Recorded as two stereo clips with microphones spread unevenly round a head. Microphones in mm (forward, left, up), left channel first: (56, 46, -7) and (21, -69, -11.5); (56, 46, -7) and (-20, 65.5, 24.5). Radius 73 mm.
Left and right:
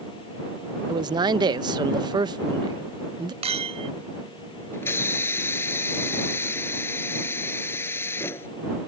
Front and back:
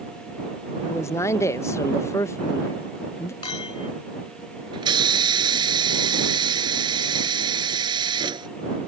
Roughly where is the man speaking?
Ahead right.